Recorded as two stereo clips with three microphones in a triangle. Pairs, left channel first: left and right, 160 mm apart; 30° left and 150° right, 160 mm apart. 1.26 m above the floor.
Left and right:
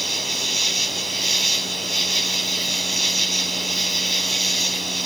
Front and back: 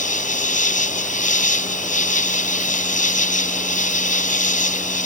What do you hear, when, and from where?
0.0 s an insect: straight ahead